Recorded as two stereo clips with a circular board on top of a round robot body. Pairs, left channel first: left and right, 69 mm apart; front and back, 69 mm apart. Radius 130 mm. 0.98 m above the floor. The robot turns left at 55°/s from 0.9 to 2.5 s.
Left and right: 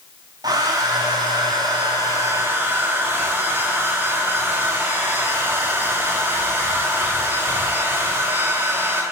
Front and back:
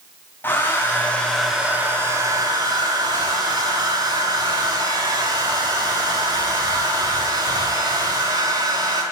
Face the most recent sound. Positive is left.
turn(degrees=-150)